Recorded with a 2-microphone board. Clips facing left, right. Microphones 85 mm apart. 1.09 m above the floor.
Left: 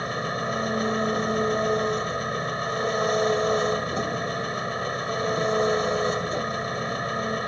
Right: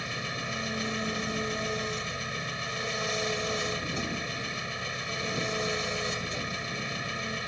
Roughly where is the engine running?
Left.